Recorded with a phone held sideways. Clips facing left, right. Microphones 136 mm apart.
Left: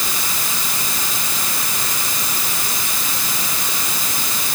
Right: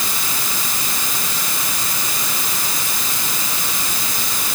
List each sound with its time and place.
Only background noise.